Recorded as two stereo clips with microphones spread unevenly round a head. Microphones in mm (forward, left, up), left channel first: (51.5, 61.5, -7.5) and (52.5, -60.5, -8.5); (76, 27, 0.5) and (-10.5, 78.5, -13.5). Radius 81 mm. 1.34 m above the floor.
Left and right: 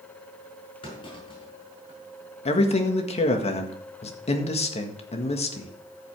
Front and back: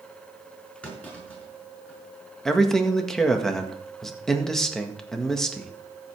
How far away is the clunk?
About 5.5 m.